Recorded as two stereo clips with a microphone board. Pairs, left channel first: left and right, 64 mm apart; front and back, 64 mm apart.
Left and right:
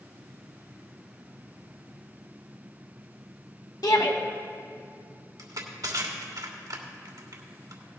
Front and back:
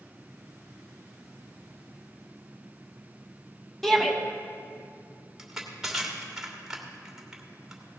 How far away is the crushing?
About 1.6 m.